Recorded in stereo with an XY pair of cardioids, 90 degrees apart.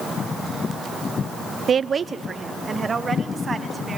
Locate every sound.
1.7 s a woman speaking: 50° right, 0.6 m; by 4.0 s 30° right, 4 m